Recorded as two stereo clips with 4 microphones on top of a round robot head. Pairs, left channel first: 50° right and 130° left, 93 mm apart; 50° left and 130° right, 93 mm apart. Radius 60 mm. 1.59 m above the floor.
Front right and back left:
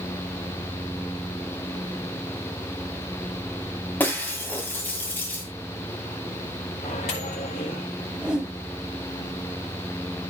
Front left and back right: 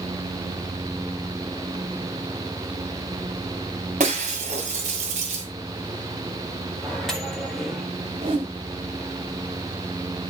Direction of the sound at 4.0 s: 120° right.